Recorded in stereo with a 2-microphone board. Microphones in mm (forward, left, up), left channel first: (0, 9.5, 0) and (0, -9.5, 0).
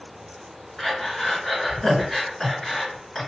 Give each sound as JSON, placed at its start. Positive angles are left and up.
{"t": 0.8, "sound": "breathing", "side_deg": 15, "distance_m": 1.6}